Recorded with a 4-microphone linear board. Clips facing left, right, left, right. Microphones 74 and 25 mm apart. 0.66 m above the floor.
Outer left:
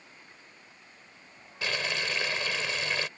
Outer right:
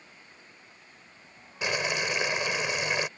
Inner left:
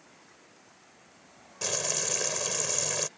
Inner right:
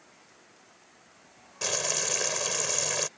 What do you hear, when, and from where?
1.6 s boiling: 15° right (ahead or behind)